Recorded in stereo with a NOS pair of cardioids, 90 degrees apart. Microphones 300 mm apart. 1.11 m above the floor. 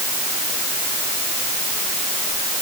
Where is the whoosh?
I don't hear a whoosh.